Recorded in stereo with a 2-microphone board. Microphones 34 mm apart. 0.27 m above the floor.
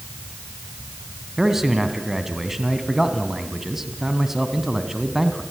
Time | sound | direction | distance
1.4 | a man speaking | 15° right (ahead or behind) | 2 m